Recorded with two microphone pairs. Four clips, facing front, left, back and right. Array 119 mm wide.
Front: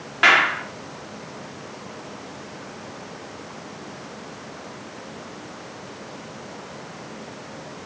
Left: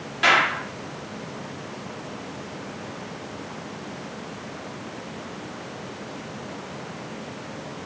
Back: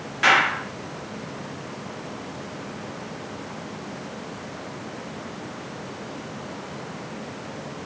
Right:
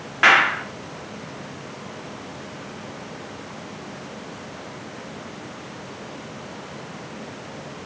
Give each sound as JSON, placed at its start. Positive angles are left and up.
{"t": 0.2, "sound": "a clap", "azimuth_deg": -50, "distance_m": 2.5}